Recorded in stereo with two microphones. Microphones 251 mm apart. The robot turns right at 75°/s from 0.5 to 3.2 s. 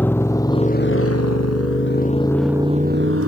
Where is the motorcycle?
10° left (ahead or behind); by 3.3 s 65° right (ahead or behind).